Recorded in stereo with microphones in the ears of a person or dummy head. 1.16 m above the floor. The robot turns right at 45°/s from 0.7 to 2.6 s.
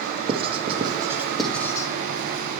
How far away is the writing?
About 1.1 m.